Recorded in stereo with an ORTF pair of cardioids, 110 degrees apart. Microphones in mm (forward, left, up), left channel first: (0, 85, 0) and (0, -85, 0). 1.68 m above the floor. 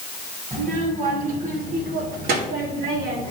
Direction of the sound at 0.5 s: 45° right.